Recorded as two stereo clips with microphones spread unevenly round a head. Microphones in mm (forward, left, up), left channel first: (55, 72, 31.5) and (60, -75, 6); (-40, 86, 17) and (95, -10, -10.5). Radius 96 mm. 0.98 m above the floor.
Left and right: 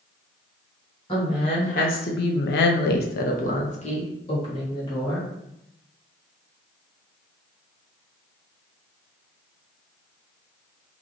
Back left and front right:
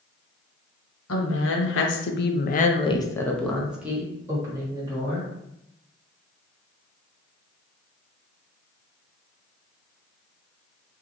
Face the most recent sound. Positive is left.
turn(degrees=30)